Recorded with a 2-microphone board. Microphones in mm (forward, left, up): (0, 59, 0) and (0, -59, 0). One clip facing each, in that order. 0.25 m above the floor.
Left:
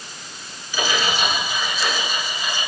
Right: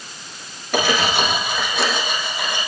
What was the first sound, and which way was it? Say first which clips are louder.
Cutlery clinking: right 4 dB; 60° right (ahead or behind).